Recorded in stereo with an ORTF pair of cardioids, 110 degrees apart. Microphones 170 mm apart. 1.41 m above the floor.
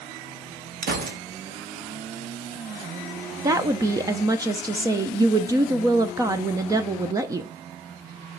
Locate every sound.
0.8 s a gunshot: 65° right, 1.7 m
3.4 s a woman speaking: 20° right, 0.7 m